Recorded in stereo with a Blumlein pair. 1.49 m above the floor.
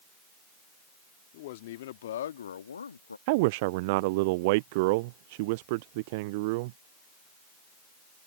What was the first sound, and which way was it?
A man speaking, 50° left.